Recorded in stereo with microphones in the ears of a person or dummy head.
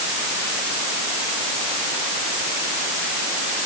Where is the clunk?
I don't hear a clunk.